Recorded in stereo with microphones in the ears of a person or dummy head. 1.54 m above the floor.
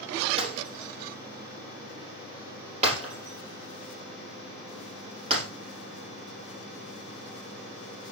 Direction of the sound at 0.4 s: 40° right (ahead or behind).